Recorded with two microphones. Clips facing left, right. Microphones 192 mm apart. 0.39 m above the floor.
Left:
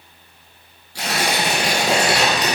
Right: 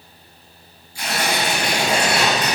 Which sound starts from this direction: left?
Tearing paper, at 0.9 s.